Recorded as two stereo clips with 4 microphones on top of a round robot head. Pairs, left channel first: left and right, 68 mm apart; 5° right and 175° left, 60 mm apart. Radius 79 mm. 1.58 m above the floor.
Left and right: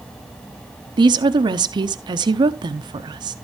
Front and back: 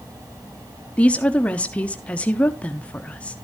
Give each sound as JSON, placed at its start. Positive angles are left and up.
{"t": 1.0, "sound": "a woman speaking", "azimuth_deg": -80, "distance_m": 1.0}